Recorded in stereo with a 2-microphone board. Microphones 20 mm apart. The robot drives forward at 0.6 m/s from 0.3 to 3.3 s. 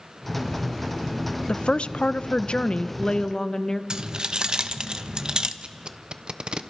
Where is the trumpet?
I don't hear a trumpet.